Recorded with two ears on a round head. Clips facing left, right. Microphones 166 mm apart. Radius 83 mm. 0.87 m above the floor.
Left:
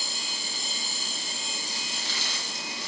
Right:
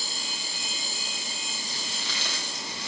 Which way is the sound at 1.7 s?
65° right (ahead or behind).